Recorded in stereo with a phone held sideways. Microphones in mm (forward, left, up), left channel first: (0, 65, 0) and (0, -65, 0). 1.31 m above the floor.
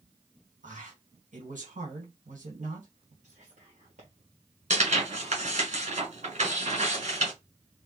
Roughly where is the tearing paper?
Right.